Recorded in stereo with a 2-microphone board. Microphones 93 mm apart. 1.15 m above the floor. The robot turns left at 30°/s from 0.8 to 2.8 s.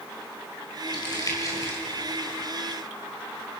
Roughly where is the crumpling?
Left.